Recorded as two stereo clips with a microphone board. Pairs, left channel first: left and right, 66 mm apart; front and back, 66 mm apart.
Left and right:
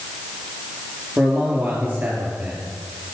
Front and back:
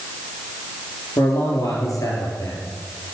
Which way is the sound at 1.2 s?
30° right.